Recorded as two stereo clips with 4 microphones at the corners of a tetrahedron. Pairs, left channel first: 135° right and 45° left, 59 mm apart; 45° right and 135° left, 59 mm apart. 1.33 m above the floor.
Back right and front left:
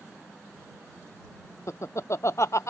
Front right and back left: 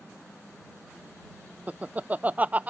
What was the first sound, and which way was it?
Laughter, 165° right.